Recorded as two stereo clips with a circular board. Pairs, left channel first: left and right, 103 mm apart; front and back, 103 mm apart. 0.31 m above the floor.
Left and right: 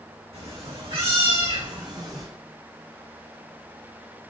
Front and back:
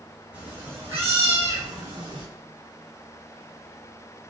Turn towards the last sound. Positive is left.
turn(degrees=-145)